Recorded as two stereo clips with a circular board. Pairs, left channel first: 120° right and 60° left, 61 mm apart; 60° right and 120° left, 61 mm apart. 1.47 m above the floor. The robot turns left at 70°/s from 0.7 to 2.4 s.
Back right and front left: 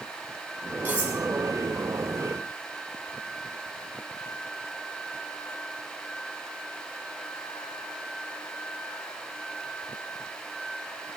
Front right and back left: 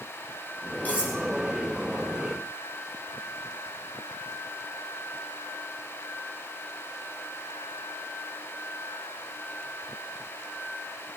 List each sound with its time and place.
0.8 s cutlery clinking: 5° left, 5 m; by 1.2 s 15° right, 5 m